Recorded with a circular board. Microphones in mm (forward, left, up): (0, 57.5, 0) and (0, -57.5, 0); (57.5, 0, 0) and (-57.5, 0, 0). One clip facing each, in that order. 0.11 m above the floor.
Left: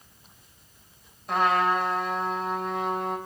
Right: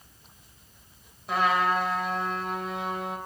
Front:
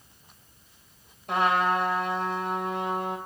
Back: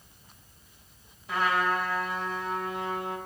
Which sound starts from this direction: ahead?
A trumpet, at 1.3 s.